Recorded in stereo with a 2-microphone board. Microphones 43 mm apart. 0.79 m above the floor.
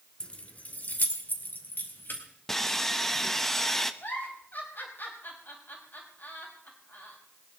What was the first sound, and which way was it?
Keys jangling, 25° left (ahead or behind).